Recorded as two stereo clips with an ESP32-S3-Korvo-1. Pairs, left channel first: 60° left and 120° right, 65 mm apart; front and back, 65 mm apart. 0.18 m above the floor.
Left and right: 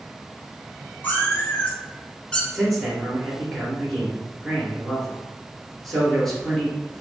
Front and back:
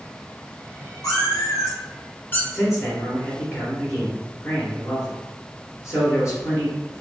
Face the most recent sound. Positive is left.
turn(degrees=-20)